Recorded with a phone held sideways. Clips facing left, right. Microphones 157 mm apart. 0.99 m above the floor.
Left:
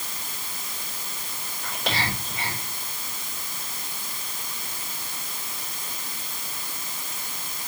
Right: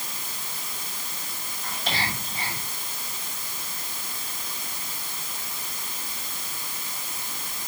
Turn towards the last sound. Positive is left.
turn(degrees=80)